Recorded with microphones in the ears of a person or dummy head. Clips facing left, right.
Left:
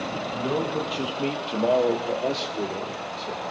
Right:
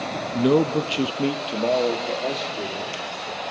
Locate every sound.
0.3 s a man speaking: 60° right (ahead or behind), 0.6 m; by 3.4 s 20° left (ahead or behind), 2.0 m